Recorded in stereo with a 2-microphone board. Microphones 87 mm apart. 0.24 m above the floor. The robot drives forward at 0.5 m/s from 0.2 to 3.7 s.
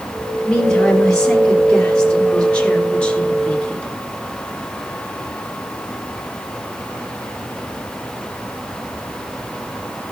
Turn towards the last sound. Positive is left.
turn(degrees=15)  # may be behind; listen again after turning